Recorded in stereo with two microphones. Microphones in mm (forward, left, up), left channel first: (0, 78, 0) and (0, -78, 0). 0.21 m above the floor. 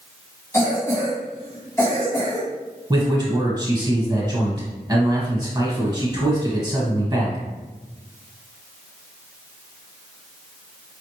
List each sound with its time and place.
0.5 s a cough: 15° left (ahead or behind), 1.7 m
2.9 s a man speaking: 25° right (ahead or behind), 1.5 m